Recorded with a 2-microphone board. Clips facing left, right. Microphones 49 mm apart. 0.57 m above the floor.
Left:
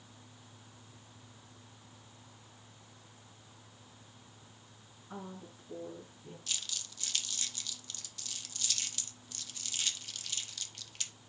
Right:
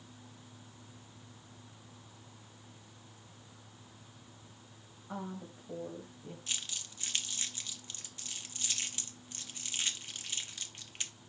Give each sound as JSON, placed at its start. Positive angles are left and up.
{"t": 5.1, "sound": "a woman speaking", "side_deg": -50, "distance_m": 3.0}
{"t": 6.5, "sound": "crumpling", "side_deg": -25, "distance_m": 1.1}